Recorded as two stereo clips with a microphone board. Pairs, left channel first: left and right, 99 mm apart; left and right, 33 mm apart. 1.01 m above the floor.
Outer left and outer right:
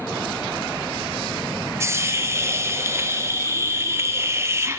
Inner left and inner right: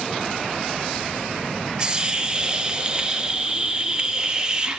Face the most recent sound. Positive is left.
turn(degrees=-25)  # may be behind; listen again after turning